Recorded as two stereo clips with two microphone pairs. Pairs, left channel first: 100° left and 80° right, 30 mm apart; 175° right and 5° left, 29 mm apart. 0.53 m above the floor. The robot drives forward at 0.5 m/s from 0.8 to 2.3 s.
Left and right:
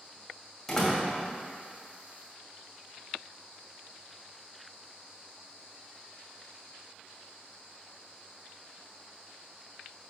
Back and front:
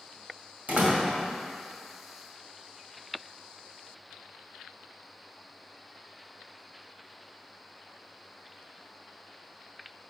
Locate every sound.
0.7 s a door slam: 20° left, 1.9 m